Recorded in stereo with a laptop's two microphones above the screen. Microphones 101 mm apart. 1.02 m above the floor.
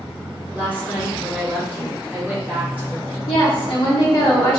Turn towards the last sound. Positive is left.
turn(degrees=55)  # may be behind; listen again after turning